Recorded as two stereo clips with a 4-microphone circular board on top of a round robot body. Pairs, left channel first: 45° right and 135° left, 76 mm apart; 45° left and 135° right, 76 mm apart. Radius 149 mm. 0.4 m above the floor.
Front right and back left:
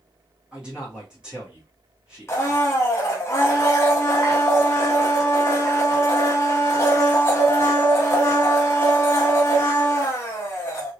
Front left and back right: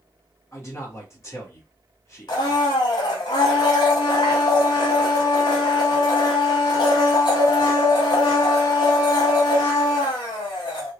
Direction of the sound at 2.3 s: 15° left.